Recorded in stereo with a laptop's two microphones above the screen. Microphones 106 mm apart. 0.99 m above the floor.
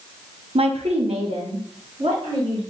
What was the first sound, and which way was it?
A woman speaking, 65° right (ahead or behind).